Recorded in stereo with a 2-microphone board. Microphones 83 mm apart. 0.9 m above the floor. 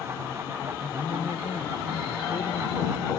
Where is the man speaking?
85° left.